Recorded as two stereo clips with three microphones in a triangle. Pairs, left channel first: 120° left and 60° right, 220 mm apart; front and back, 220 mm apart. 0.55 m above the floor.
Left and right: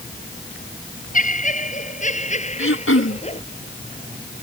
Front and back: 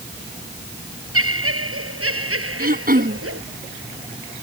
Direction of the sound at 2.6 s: 135° left.